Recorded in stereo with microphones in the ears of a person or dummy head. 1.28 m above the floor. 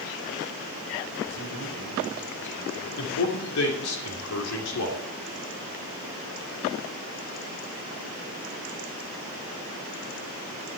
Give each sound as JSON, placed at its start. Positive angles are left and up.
{"t": 1.2, "sound": "a man speaking", "side_deg": 75, "distance_m": 5.5}
{"t": 3.0, "sound": "a man speaking", "side_deg": 80, "distance_m": 3.0}